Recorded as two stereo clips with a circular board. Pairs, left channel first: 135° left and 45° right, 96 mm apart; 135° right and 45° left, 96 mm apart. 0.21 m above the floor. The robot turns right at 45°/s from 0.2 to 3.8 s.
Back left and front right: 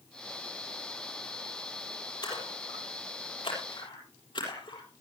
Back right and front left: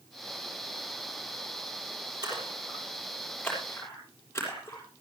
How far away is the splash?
About 7 m.